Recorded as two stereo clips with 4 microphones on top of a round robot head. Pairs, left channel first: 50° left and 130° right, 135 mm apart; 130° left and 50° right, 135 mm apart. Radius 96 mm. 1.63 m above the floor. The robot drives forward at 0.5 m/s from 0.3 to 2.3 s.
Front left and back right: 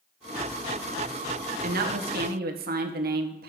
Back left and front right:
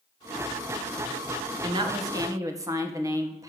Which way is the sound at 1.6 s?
110° right.